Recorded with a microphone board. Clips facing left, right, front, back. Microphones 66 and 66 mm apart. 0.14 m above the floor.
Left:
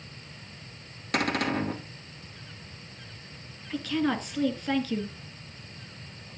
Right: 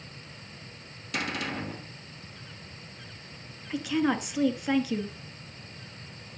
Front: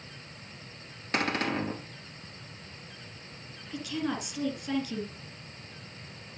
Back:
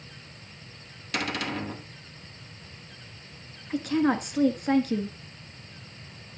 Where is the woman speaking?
165° right, 1.7 m.